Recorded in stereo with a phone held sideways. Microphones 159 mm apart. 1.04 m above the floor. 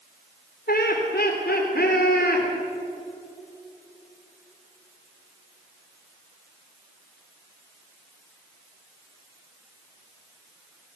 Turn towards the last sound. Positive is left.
turn(degrees=80)